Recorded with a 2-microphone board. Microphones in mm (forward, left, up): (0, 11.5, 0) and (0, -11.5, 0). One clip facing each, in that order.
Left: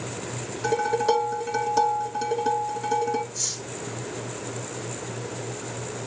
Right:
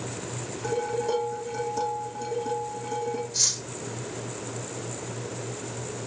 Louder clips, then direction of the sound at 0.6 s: Left 5 dB; 50° left (ahead or behind).